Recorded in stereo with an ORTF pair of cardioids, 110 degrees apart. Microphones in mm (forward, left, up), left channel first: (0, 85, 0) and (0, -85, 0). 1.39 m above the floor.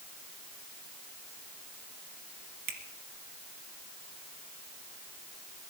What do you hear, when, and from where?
2.7 s a finger snap: 65° right, 2 m